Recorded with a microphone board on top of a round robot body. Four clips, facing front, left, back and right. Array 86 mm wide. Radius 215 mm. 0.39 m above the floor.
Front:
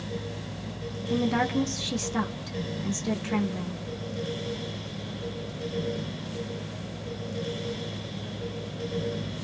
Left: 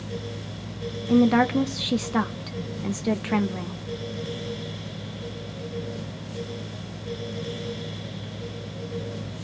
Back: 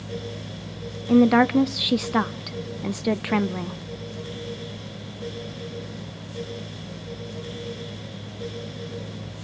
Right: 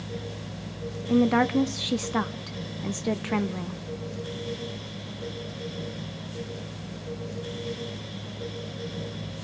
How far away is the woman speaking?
About 0.9 m.